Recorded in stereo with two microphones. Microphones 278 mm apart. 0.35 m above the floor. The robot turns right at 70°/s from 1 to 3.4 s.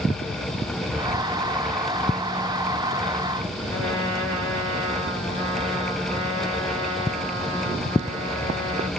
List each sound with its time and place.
3.7 s a trumpet: 55° left (ahead or behind), 3.5 m